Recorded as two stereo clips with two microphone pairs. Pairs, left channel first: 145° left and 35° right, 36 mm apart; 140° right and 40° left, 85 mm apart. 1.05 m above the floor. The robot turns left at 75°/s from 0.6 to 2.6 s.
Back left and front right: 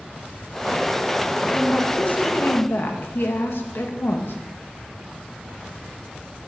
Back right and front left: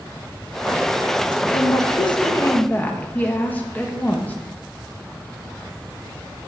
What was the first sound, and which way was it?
A woman speaking, 130° right.